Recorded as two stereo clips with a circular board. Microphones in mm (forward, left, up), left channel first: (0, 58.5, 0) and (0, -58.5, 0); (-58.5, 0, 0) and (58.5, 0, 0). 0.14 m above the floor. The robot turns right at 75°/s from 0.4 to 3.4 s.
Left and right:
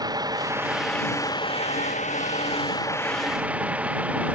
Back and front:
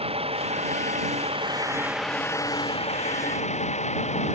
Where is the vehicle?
35° right; by 4.4 s 170° right.